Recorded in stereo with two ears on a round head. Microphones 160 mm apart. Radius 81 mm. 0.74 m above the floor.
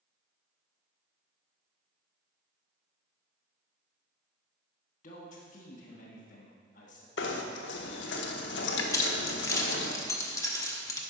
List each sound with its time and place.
5.0 s a man speaking: 45° left (ahead or behind), 1.3 m
7.2 s knocking: 65° left (ahead or behind), 1.0 m
8.9 s keys jangling: 20° left (ahead or behind), 1.1 m